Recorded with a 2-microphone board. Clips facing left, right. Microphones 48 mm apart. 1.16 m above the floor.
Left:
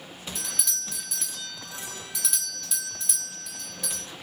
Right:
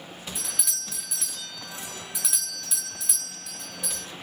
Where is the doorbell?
10° right (ahead or behind), 2.5 m.